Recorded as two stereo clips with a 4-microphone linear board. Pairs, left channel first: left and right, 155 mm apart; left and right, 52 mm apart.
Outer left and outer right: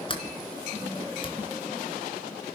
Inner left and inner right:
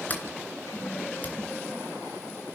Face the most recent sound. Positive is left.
turn(degrees=35)  # may be behind; listen again after turning